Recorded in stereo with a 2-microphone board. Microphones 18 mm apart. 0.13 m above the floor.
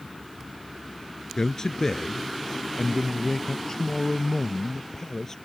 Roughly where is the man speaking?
Left.